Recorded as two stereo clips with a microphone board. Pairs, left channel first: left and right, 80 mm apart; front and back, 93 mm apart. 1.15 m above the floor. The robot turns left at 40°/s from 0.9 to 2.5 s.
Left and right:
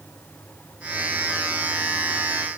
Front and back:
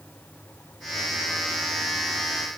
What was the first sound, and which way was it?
Only background noise.